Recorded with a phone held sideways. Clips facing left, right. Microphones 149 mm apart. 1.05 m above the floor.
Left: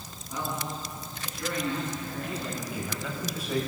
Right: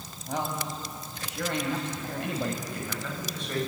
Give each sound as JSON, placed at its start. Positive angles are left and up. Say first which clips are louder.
{"t": 0.3, "sound": "a man speaking", "louder": "right 2 dB", "side_deg": -80, "distance_m": 6.5}
{"t": 2.6, "sound": "a man speaking", "louder": "left 1 dB", "side_deg": 5, "distance_m": 7.0}